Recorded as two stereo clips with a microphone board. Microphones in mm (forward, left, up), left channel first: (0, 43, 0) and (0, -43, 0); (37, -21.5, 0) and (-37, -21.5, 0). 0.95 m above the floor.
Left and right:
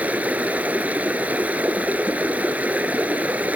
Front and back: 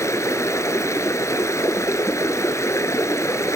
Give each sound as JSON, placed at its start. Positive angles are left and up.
{"t": 0.0, "sound": "running water", "azimuth_deg": -25, "distance_m": 1.3}